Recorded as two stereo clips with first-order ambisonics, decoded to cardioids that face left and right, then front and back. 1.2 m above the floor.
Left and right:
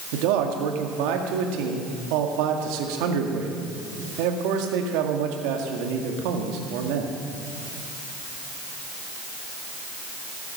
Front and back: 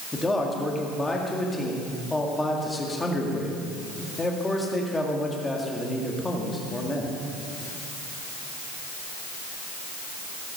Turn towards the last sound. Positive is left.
turn(degrees=-80)